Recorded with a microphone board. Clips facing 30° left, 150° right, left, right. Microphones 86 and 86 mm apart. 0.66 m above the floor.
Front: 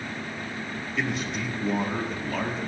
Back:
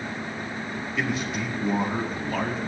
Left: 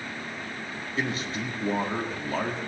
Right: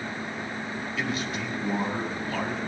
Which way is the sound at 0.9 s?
125° left.